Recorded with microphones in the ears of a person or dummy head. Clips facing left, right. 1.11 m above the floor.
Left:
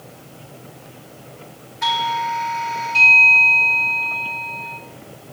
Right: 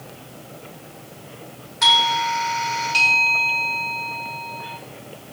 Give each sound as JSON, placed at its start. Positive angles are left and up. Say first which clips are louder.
{"t": 1.8, "sound": "a doorbell", "louder": "even", "side_deg": -50, "distance_m": 1.7}